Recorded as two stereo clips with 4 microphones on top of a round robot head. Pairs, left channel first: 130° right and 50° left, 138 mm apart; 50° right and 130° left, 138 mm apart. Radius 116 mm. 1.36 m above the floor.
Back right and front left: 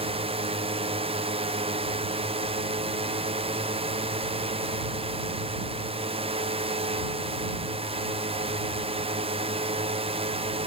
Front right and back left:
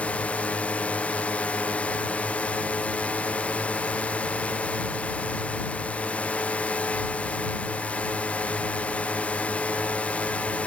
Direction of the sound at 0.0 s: 30° left.